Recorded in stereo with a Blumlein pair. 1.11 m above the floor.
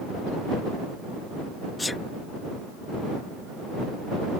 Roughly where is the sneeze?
Ahead.